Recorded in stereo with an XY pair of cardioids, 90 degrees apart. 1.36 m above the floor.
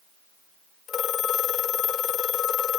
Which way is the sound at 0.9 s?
65° left.